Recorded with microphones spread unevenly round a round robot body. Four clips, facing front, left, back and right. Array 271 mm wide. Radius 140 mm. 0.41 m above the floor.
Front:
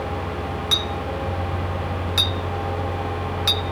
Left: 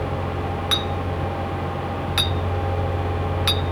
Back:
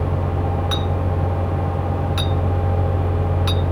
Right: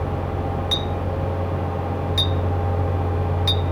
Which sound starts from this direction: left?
A clink, at 0.7 s.